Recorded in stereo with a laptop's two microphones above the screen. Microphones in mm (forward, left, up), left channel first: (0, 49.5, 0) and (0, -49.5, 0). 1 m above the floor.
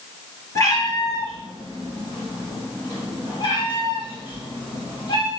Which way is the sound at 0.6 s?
35° left (ahead or behind).